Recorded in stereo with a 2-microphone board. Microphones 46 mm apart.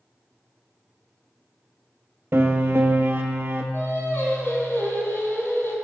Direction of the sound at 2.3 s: 60° right (ahead or behind).